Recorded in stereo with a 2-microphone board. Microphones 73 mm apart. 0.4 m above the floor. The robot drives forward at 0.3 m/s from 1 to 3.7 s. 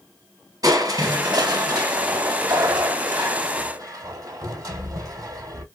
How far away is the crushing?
About 1.7 m.